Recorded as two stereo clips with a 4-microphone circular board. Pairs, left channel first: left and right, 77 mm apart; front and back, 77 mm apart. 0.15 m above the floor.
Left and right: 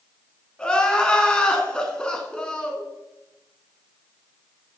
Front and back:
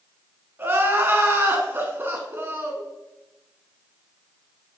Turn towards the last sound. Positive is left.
turn(degrees=160)